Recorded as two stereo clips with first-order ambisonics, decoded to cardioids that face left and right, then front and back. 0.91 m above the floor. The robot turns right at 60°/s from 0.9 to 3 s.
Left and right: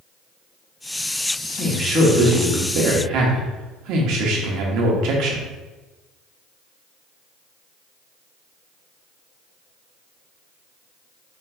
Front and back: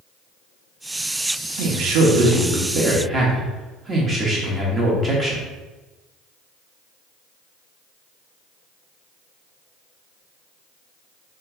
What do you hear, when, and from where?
1.6 s a man speaking: 165° left, 1.3 m; by 5.5 s 110° right, 1.3 m